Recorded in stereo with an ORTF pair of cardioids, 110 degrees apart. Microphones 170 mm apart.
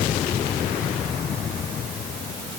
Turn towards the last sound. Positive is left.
No sound to turn to.